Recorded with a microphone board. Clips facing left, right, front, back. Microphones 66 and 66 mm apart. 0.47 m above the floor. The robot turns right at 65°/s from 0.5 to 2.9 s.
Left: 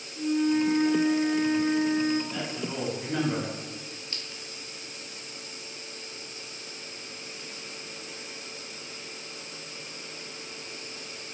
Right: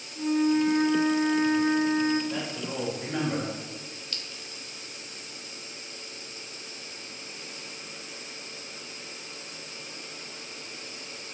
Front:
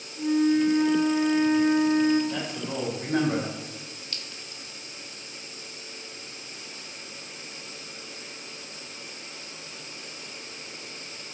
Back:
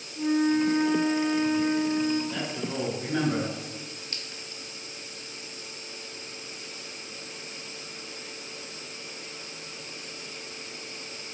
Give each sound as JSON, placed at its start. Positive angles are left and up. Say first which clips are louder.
{"t": 0.1, "sound": "a flute", "louder": "right 1 dB, front 2 dB", "azimuth_deg": -145, "distance_m": 0.7}
{"t": 2.3, "sound": "a man speaking", "louder": "even, even", "azimuth_deg": -60, "distance_m": 1.6}
{"t": 4.1, "sound": "a clink", "louder": "left 1 dB, back 1 dB", "azimuth_deg": 135, "distance_m": 0.6}